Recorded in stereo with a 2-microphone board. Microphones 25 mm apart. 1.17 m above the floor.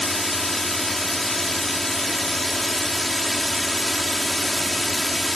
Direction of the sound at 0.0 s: 10° left (ahead or behind).